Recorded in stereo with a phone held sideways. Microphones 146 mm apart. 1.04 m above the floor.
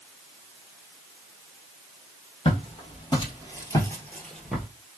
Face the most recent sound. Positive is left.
turn(degrees=0)  # may be behind; listen again after turning